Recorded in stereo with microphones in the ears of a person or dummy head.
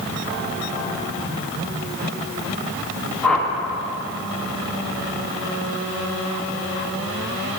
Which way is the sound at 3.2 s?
10° left (ahead or behind).